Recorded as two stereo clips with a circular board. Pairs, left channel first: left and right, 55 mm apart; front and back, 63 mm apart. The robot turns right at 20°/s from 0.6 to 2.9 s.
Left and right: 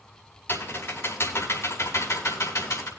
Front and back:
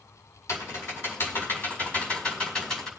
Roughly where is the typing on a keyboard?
Ahead left.